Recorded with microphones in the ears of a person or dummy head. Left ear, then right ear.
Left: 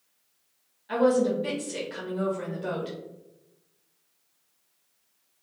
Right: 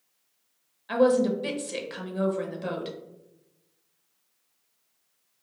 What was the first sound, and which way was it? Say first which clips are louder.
A woman speaking: right 1 dB; 35° right (ahead or behind).